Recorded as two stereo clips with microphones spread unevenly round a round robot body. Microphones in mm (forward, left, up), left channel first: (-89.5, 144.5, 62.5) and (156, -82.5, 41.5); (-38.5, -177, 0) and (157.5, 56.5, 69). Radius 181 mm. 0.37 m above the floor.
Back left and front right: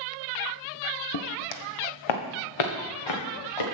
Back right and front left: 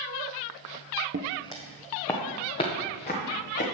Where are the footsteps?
100° left, 0.9 m; by 3.6 s 160° left, 3.5 m.